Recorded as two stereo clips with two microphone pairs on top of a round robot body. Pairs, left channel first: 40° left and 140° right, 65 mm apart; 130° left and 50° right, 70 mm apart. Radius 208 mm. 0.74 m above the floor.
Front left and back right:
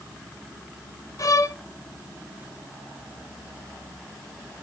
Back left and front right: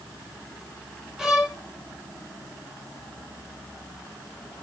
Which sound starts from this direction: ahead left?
A violin, at 1.2 s.